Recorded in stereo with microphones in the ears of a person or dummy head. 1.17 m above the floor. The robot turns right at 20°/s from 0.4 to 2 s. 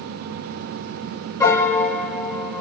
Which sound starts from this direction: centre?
A piano, at 1.4 s.